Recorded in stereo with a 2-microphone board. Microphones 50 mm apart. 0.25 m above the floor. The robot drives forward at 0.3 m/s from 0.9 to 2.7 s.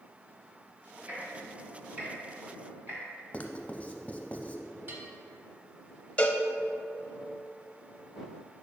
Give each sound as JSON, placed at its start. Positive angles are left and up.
{"t": 1.1, "sound": "ticking", "side_deg": -35, "distance_m": 1.8}
{"t": 3.3, "sound": "writing", "side_deg": 25, "distance_m": 0.6}
{"t": 4.9, "sound": "a bell", "side_deg": -45, "distance_m": 1.0}
{"t": 6.2, "sound": "a cowbell", "side_deg": 25, "distance_m": 0.6}